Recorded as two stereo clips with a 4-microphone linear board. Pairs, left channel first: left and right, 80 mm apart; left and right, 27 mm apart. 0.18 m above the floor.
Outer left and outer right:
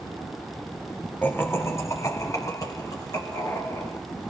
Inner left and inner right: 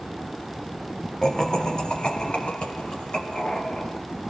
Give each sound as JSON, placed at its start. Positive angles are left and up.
{"t": 1.2, "sound": "laughter", "side_deg": 20, "distance_m": 1.0}